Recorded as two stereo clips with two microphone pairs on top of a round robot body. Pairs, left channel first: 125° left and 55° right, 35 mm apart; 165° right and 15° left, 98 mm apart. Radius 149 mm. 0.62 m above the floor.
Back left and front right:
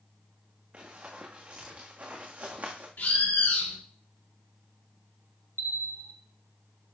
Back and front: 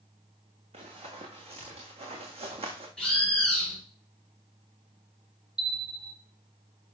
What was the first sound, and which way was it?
Running footsteps, 5° left.